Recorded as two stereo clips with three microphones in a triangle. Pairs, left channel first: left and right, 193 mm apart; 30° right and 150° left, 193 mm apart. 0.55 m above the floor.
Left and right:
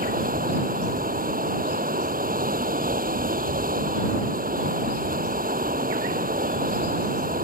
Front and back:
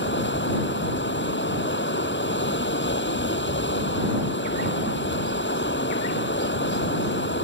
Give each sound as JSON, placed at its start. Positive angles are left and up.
{"t": 0.0, "sound": "running water", "azimuth_deg": -50}